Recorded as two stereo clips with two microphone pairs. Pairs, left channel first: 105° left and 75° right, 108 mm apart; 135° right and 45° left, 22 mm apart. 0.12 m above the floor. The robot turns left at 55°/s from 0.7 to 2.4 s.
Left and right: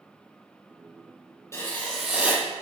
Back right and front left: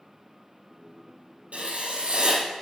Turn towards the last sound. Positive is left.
turn(degrees=-5)